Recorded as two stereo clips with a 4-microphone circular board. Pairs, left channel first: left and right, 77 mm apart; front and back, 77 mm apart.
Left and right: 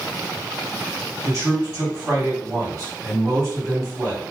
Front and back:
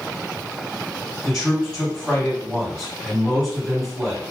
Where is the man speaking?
85° right, 1.8 m.